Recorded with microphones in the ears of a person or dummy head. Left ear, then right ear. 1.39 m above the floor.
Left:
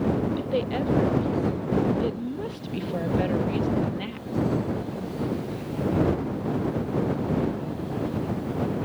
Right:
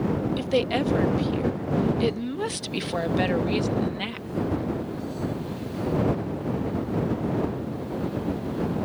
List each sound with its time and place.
0.4 s a woman speaking: 80° right; by 4.3 s 30° right (ahead or behind)